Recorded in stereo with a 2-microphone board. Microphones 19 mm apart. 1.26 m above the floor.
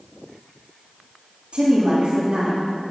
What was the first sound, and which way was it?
A woman speaking, 70° right (ahead or behind).